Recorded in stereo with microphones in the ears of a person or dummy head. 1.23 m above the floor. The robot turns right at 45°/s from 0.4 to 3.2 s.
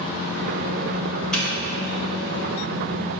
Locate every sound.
1.3 s a doorbell: centre (ahead or behind), 1.0 m; by 2.4 s 25° left (ahead or behind), 1.0 m